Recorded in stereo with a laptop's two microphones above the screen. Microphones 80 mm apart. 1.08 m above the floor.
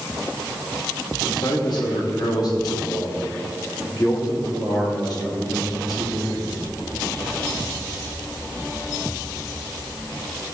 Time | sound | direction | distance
1.3 | a man speaking | 60° left (ahead or behind) | 2.5 m